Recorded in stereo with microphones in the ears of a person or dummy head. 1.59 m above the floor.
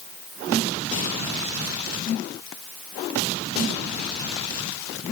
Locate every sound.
Only background noise.